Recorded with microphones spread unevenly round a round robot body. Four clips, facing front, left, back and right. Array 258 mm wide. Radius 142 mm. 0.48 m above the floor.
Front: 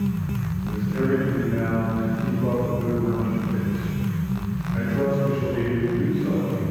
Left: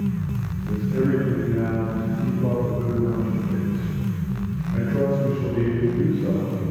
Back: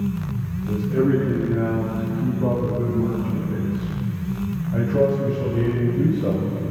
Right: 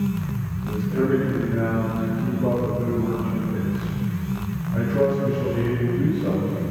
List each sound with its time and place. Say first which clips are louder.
0.7 s a man speaking: right 1 dB, back 4 dB; 160° left, 6 m; by 6.6 s 175° right, 2.5 m